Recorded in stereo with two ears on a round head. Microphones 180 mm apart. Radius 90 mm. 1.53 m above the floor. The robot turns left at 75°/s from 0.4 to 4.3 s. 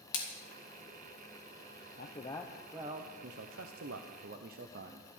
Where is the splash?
80° left, 3 m.